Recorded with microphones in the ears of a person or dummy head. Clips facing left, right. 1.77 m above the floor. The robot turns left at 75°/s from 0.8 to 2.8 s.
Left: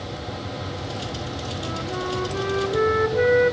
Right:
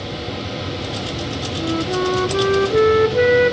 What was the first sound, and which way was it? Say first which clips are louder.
A flute: right 11 dB; 40° right.